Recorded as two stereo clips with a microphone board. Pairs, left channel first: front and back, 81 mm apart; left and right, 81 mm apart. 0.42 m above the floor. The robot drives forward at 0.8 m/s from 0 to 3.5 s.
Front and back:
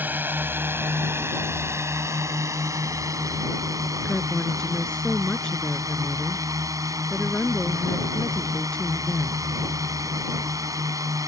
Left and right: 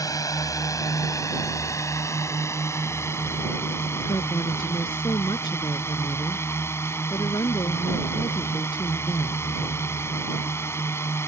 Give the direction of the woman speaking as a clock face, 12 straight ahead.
9 o'clock.